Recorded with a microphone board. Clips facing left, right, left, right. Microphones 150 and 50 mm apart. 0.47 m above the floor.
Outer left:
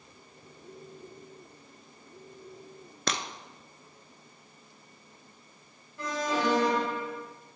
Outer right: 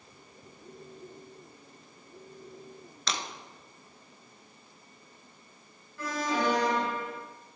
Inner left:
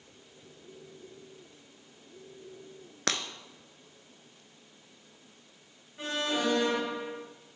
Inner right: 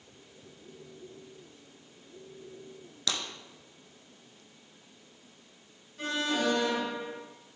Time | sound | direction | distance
3.1 | breaking glass | 55° left (ahead or behind) | 0.7 m
6.0 | an alarm | 25° left (ahead or behind) | 2.5 m